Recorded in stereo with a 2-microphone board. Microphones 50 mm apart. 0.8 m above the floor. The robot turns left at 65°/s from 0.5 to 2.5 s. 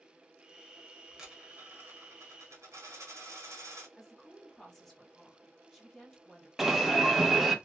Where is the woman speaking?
5° left (ahead or behind), 1.2 m.